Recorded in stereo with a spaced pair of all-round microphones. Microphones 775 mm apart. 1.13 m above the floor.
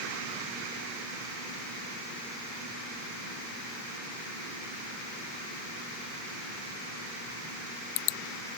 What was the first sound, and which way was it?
Only background noise.